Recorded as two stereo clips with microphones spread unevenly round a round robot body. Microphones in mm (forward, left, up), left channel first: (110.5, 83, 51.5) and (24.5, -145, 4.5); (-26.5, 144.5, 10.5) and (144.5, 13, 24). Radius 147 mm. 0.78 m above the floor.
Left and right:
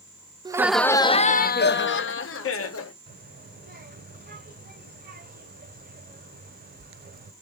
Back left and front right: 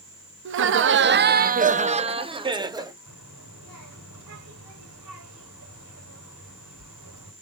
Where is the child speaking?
60° right, 2 m.